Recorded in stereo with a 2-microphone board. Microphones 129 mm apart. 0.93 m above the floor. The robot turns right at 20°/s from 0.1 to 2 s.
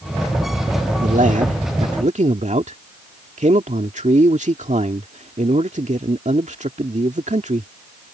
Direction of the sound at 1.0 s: 80° right.